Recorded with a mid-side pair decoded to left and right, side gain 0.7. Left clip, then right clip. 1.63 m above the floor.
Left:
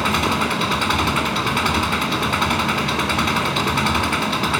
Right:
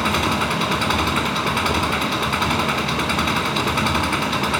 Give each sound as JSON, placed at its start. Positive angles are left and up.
{"t": 0.0, "sound": "an engine running", "azimuth_deg": 10}